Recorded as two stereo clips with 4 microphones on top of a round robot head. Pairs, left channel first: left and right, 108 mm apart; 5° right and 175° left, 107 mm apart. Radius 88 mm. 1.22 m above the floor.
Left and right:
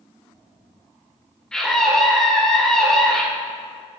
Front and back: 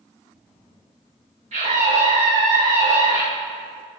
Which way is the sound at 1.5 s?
175° left.